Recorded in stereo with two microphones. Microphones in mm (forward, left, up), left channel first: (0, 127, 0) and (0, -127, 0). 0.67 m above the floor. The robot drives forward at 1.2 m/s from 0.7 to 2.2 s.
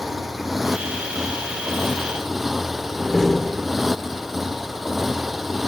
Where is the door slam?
Centre (ahead or behind).